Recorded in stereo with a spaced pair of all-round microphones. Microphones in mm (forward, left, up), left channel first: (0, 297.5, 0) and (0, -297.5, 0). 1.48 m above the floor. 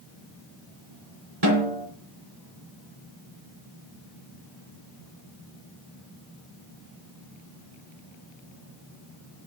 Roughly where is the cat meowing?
No cat meowing in this recording.